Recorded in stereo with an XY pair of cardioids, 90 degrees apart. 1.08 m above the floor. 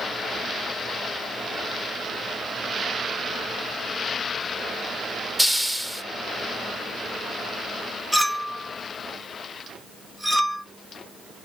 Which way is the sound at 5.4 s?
5° right.